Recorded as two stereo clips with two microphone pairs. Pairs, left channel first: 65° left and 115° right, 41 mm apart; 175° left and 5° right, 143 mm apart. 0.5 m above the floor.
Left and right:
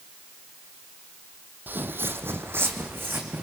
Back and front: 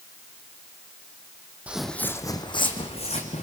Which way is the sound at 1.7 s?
85° right.